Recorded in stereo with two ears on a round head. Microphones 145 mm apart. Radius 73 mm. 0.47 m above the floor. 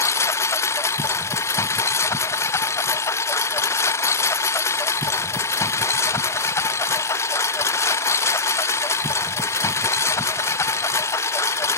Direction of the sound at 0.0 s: 15° left (ahead or behind).